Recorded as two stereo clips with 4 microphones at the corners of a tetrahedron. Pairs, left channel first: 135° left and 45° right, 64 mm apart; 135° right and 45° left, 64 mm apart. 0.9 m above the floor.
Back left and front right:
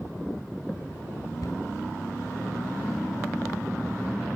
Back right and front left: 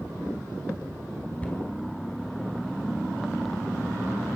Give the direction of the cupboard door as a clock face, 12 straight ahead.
7 o'clock.